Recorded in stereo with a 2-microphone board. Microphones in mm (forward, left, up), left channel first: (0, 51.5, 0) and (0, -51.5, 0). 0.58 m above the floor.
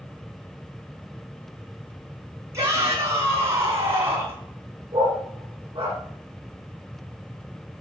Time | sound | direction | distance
2.5 | a shout | 30° right (ahead or behind) | 6.5 m
4.9 | a dog barking | 50° right (ahead or behind) | 6.5 m